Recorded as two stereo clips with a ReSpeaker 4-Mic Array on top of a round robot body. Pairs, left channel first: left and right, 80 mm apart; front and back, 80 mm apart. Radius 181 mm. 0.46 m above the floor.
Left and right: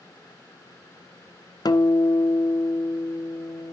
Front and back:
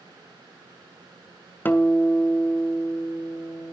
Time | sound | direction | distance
1.6 | a guitar | 65° left | 1.5 m